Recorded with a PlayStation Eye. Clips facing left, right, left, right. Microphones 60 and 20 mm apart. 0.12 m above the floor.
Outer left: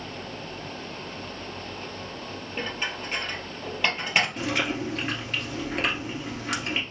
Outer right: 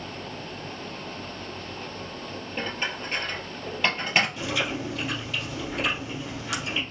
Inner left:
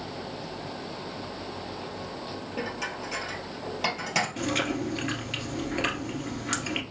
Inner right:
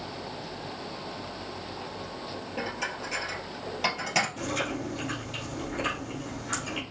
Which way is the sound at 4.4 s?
50° left (ahead or behind).